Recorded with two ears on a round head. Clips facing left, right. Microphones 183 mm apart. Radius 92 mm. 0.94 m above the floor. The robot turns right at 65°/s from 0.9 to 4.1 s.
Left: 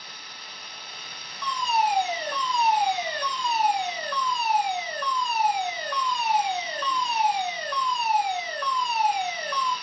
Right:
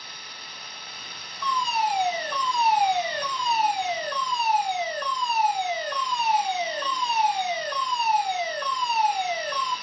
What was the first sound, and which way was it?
A fire alarm, 105° left.